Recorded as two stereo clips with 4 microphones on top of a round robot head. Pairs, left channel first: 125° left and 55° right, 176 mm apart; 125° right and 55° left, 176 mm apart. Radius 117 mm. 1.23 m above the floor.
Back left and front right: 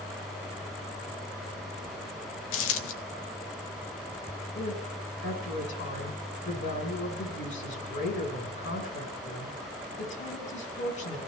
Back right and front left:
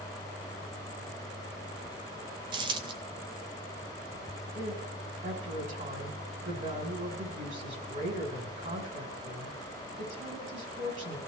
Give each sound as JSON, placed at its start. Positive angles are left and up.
{"t": 2.5, "sound": "a dropped coin", "azimuth_deg": 115, "distance_m": 0.7}
{"t": 4.5, "sound": "a woman speaking", "azimuth_deg": 100, "distance_m": 5.0}